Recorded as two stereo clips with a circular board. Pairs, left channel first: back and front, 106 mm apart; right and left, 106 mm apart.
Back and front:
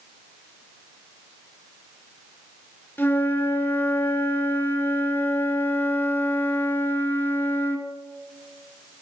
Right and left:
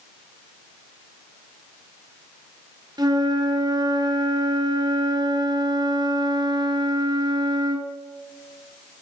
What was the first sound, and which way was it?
A flute, 115° left.